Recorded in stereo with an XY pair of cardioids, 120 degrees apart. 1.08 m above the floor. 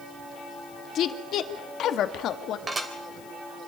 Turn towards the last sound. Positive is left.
turn(degrees=-25)